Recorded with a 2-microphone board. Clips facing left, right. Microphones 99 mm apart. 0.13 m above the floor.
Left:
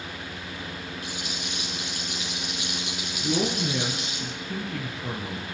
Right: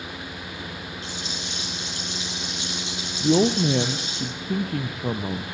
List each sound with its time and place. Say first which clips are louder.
1.0 s a rattle: right 1 dB; 25° right (ahead or behind), 9.5 m
3.2 s a woman speaking: right 7 dB; 45° right (ahead or behind), 2.5 m